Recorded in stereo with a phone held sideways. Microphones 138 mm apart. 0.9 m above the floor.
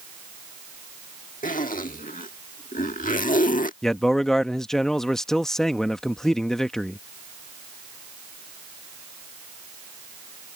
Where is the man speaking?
5° left (ahead or behind).